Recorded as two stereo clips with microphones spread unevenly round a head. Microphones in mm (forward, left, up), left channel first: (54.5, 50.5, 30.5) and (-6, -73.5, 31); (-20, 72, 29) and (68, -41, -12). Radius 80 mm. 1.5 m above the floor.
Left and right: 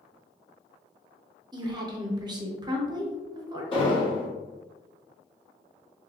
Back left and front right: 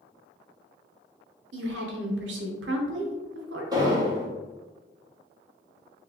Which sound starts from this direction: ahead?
An explosion, at 3.7 s.